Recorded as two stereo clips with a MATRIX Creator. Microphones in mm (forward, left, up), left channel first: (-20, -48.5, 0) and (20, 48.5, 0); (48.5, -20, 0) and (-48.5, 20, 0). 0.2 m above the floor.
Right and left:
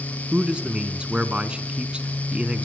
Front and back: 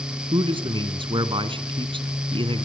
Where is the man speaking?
145° left, 1.9 m.